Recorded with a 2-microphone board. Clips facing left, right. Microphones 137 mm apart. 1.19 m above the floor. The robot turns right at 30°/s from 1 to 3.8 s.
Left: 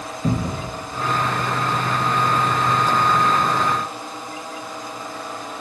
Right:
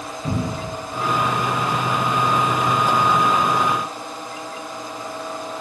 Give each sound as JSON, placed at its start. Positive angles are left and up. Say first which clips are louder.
{"t": 0.2, "sound": "a cupboard door", "louder": "left 2 dB", "side_deg": 40, "distance_m": 0.6}